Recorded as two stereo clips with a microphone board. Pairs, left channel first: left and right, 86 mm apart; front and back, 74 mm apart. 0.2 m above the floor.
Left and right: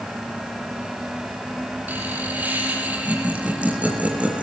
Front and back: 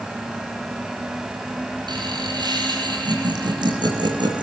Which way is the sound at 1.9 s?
160° right.